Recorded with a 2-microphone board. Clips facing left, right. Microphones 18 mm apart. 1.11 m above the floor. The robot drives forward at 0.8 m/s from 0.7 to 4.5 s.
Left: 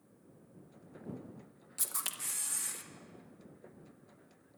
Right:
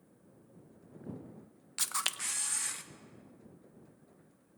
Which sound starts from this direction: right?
A camera shutter, at 1.8 s.